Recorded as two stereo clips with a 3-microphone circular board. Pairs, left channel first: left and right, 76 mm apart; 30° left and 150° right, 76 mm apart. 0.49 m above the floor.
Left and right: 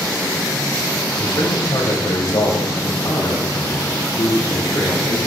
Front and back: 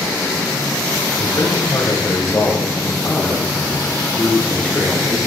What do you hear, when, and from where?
1.2 s a man speaking: 55° left, 2 m; by 5.2 s 110° left, 3.5 m